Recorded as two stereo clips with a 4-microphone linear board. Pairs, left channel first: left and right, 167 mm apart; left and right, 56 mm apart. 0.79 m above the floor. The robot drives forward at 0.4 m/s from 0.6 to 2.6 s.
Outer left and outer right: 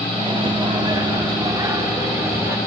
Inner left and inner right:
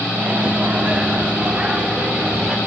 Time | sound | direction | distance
0.1 | a microwave | 30° right (ahead or behind) | 1.1 m